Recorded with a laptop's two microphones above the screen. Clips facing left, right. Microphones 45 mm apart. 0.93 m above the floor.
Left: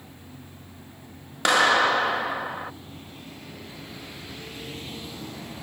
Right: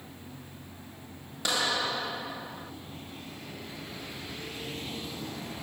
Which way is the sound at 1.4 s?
65° left (ahead or behind).